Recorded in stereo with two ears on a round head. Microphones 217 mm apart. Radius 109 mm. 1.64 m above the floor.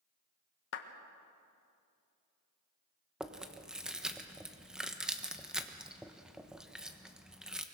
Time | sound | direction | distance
0.7 | a clap | 50° left (ahead or behind) | 1.5 m
3.2 | chewing | centre (ahead or behind) | 1.1 m